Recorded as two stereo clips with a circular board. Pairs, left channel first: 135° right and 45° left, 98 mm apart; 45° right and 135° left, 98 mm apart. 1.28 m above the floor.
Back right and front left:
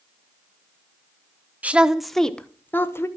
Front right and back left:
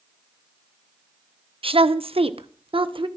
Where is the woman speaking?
120° left, 0.9 m; by 3.1 s 160° left, 1.3 m.